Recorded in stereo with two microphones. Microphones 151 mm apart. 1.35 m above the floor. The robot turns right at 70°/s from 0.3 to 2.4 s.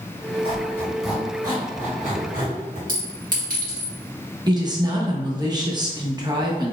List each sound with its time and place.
0.4 s a squeak: 35° left (ahead or behind), 1.9 m; by 2.8 s 65° right (ahead or behind), 1.9 m
2.9 s a clink: 65° right (ahead or behind), 1.7 m
4.5 s a woman speaking: 30° right (ahead or behind), 0.8 m